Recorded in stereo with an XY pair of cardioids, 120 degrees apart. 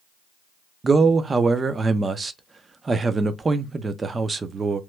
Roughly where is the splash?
No splash in this recording.